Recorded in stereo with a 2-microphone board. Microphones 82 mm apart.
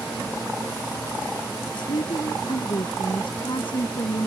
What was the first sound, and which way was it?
A woman speaking, 70° left (ahead or behind).